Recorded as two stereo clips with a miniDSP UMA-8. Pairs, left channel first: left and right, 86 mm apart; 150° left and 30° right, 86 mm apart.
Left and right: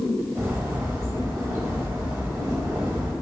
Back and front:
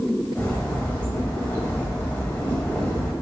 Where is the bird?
140° right, 1.1 m.